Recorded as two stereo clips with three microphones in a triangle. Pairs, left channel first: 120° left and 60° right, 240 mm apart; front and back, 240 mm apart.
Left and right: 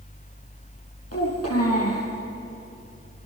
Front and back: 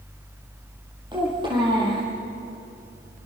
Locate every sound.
1.1 s a child speaking: 110° left, 8.5 m